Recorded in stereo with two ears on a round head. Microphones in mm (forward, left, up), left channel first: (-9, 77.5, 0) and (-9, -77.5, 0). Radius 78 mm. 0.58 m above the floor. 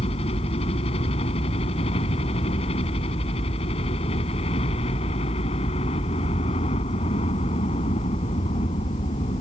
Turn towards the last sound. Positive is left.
turn(degrees=35)  # may be behind; listen again after turning